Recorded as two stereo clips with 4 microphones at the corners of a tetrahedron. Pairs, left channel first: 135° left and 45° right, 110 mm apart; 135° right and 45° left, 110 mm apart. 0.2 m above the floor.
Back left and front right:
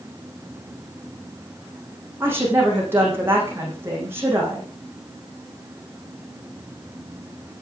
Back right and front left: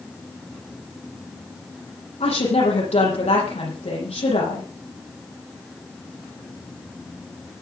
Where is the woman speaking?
115° right, 9.5 m.